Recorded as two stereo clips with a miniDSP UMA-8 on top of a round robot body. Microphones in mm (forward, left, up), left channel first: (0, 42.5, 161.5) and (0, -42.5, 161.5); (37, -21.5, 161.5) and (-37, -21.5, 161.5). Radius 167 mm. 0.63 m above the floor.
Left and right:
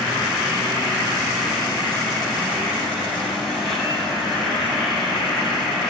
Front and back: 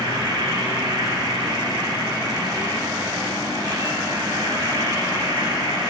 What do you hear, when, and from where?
0.0 s an insect: 175° right, 7.5 m